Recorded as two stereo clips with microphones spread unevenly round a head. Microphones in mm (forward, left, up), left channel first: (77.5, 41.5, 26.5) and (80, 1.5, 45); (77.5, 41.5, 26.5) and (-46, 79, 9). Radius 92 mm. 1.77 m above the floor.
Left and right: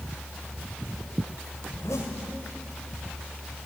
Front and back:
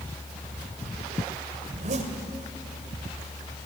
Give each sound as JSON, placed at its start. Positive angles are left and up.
{"t": 1.7, "sound": "a zipper", "azimuth_deg": 150, "distance_m": 2.0}